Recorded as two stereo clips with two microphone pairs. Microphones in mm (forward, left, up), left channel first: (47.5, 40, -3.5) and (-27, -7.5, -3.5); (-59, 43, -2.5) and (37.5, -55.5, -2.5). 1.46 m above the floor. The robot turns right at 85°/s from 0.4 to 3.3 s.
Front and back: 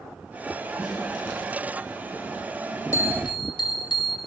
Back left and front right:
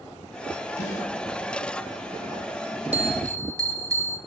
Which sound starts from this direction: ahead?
A bell, at 2.9 s.